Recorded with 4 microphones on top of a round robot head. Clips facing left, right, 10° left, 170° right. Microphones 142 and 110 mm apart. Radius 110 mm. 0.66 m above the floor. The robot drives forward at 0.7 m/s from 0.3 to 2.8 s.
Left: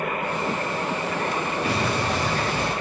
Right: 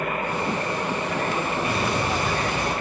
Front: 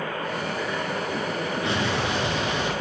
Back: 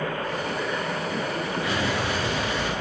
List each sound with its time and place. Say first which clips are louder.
1.6 s an explosion: even, front 1 dB; 75° left, 8 m; by 2.7 s 80° left, 7.5 m